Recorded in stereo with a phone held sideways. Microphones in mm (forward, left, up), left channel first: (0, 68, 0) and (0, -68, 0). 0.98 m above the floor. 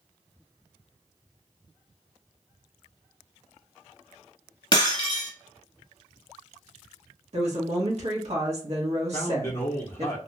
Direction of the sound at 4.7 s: 35° left (ahead or behind).